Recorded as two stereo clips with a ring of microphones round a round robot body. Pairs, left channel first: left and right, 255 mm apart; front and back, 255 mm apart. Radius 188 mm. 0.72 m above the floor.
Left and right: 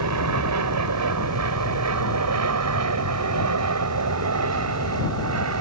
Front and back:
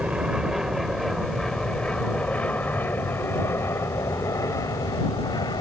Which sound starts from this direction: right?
An aircraft, at 0.0 s.